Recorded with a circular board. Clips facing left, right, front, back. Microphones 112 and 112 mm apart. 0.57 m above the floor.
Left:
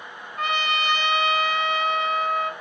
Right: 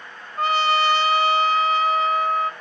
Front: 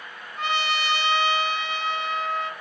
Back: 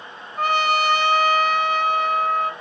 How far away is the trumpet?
About 1.5 m.